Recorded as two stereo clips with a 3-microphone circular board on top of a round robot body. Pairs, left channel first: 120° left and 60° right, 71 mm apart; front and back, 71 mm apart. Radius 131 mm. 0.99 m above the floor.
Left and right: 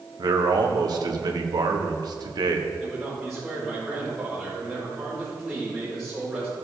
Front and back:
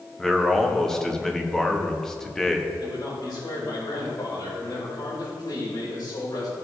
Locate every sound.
0.2 s a man speaking: 85° right, 1.4 m
2.8 s a man speaking: 30° left, 4.5 m